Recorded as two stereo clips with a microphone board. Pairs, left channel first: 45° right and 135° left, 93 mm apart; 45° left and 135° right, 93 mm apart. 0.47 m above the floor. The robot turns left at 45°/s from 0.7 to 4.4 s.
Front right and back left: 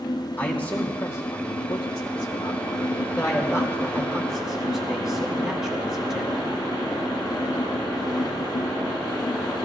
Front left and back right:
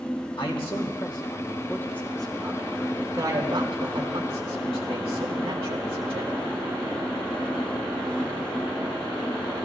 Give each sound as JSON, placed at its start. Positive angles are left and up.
{"t": 0.4, "sound": "a man speaking", "azimuth_deg": 30, "distance_m": 3.0}